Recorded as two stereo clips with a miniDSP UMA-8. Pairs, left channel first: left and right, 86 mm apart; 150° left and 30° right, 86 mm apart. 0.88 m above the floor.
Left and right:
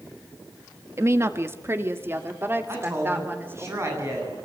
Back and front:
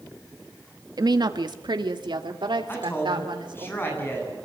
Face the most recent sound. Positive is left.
turn(degrees=-145)